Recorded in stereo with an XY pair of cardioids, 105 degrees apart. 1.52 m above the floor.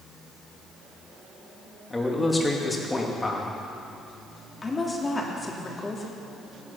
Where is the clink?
I don't hear a clink.